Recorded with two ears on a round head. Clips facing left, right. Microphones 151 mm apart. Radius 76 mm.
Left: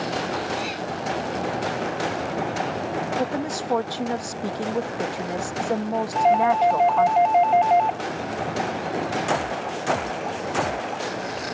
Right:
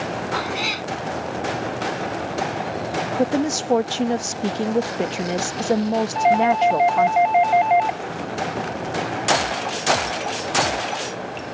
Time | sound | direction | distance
0.3 | a cat meowing | 80° right | ?
3.2 | a woman speaking | 30° right (ahead or behind) | ?
6.2 | a doorbell | 10° right (ahead or behind) | ?